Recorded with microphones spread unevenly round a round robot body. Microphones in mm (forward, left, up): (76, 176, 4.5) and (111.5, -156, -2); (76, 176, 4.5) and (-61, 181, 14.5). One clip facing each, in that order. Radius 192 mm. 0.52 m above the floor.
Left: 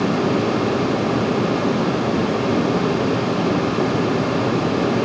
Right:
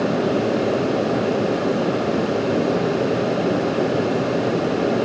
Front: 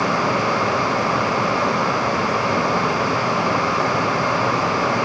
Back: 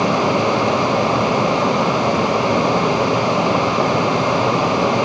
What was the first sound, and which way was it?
Only background noise.